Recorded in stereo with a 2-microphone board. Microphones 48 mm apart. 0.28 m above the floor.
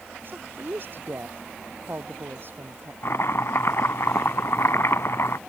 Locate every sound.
0.2 s a woman speaking: 45° right (ahead or behind)
3.0 s chopping: 70° left (ahead or behind)